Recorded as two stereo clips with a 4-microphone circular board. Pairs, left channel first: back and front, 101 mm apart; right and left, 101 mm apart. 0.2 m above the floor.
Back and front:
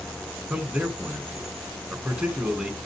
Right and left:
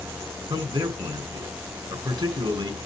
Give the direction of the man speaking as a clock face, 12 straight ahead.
9 o'clock.